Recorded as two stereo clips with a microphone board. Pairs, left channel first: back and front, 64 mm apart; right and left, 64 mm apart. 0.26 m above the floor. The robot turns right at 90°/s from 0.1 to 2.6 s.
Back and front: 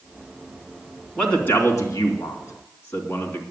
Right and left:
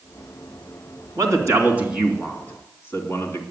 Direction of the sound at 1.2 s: 95° left.